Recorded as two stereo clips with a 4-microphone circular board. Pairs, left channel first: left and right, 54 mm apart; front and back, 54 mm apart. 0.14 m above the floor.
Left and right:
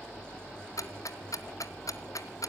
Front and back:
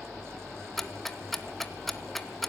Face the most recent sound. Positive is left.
turn(degrees=85)